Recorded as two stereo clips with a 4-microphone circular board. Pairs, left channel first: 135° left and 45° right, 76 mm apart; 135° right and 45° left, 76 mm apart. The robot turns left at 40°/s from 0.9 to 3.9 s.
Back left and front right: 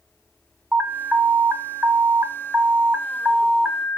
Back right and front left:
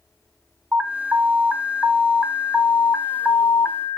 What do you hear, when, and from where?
0.7 s an alarm: 10° left, 0.8 m; by 4.0 s 110° right, 0.8 m